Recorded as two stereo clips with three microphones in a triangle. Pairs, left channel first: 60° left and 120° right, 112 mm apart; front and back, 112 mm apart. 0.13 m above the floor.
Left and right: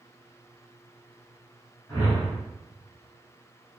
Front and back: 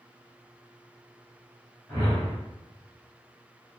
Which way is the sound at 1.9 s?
5° left.